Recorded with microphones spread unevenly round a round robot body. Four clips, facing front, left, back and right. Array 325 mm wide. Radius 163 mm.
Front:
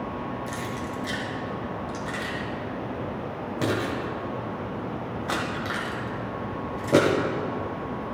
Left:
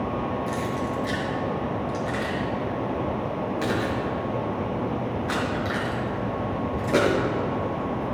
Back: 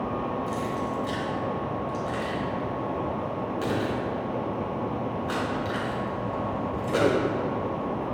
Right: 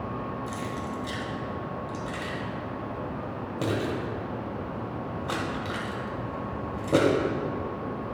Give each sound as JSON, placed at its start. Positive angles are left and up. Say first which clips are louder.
{"t": 0.5, "sound": "keys jangling", "louder": "left 6 dB, back 3 dB", "azimuth_deg": -35, "distance_m": 1.9}